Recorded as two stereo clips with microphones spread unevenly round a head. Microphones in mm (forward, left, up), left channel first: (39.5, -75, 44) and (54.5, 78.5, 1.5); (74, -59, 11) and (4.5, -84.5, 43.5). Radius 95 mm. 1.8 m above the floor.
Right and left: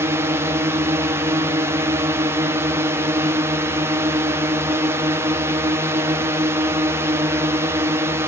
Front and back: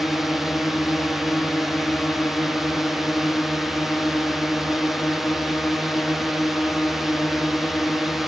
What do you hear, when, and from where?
0.0 s a drone: 70° left